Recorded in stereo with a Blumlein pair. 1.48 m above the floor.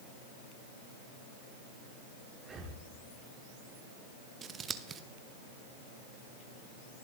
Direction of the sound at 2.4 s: 15° right.